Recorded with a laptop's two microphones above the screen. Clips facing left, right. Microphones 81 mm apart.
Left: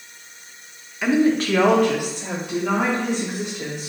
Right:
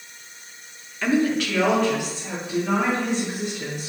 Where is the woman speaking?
10° left (ahead or behind), 0.6 m; by 3.9 s 80° left, 2.5 m.